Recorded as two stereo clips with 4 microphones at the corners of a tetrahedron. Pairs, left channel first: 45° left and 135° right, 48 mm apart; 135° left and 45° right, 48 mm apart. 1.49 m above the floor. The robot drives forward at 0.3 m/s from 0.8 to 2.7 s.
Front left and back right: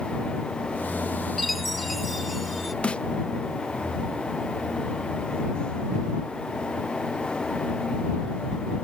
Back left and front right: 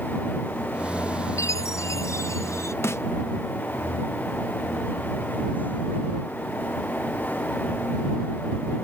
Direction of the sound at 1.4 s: 135° left.